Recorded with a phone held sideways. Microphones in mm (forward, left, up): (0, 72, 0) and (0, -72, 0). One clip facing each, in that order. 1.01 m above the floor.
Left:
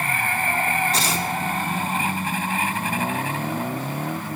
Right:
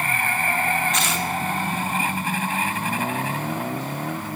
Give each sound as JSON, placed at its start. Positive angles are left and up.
{"t": 0.9, "sound": "tearing paper", "side_deg": 35, "distance_m": 1.0}